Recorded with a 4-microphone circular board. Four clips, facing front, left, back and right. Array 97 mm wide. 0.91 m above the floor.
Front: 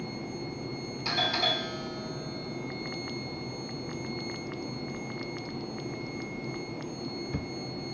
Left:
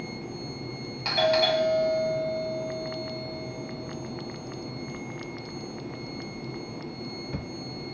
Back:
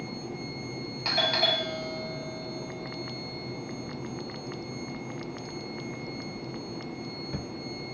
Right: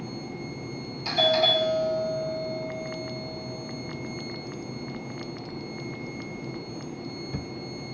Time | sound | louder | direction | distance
1.1 | a doorbell | left 1 dB, back 3 dB | 125° left | 1.5 m